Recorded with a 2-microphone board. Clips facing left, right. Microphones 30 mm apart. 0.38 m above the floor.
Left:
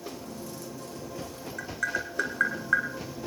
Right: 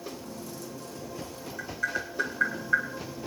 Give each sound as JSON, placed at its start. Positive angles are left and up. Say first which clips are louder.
{"t": 1.6, "sound": "tapping", "louder": "left 1 dB", "side_deg": 75, "distance_m": 3.5}